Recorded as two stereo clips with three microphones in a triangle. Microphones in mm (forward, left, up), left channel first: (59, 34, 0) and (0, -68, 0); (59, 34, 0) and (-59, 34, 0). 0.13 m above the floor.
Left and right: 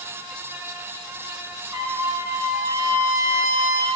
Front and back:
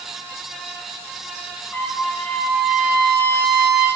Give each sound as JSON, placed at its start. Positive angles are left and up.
{"t": 1.7, "sound": "a trumpet", "azimuth_deg": -65, "distance_m": 2.0}